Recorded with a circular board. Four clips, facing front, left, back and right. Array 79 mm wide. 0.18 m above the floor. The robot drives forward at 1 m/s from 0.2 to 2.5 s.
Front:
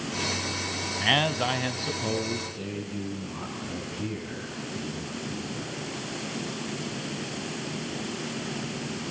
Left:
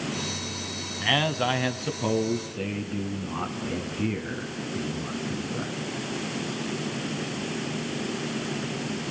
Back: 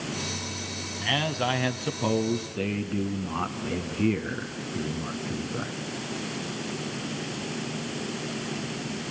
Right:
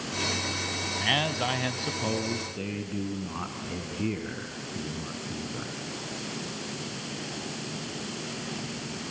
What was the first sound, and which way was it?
A man speaking, 20° left.